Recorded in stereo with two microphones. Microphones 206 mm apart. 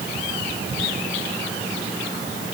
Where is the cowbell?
No cowbell in this recording.